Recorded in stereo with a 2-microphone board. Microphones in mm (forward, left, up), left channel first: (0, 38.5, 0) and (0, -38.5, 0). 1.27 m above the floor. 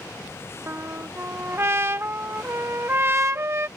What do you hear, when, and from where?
0.7 s a trumpet: 30° right (ahead or behind)